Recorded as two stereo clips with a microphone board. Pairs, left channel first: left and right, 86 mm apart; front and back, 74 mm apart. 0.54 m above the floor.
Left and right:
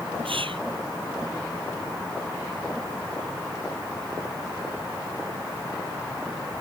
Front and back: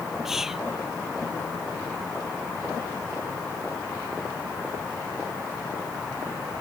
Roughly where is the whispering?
Right.